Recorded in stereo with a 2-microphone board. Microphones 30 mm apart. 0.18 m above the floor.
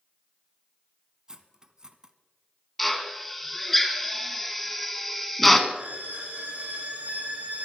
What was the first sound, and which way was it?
Cutlery clinking, 20° right (ahead or behind).